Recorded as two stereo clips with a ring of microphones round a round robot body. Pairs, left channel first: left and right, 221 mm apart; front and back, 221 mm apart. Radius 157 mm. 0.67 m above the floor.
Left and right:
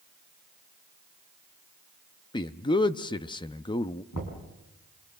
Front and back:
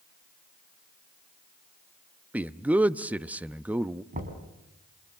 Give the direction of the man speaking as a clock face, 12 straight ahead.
8 o'clock.